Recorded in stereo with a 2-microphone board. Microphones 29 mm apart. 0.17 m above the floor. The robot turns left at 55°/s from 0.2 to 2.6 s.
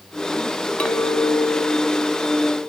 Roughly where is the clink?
Left.